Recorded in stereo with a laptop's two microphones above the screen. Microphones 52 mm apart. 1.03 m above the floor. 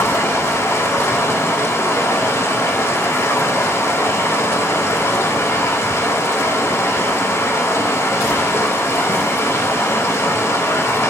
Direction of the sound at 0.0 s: 70° left (ahead or behind).